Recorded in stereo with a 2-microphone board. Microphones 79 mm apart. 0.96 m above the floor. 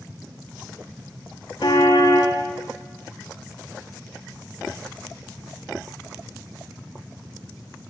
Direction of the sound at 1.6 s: 80° left.